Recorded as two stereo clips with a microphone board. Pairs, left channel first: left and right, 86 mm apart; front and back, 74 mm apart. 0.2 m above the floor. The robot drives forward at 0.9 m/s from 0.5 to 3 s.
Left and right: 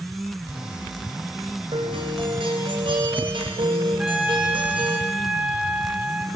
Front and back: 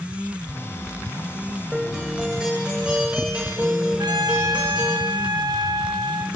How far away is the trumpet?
About 2.5 m.